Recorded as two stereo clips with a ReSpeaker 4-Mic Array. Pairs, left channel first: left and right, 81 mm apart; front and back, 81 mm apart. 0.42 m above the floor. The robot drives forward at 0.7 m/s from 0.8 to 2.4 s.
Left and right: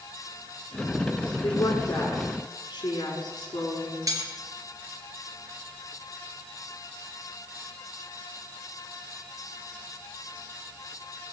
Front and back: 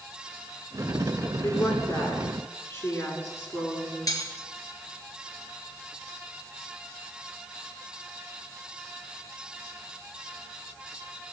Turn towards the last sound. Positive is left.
turn(degrees=-45)